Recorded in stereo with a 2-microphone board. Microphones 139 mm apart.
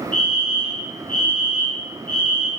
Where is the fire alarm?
80° left, 4.5 m.